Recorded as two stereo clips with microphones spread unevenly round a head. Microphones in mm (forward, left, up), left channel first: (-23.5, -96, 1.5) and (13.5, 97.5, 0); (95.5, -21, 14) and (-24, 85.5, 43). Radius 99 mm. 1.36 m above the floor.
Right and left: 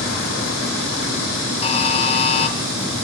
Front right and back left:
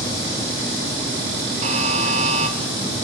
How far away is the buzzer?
About 1.2 m.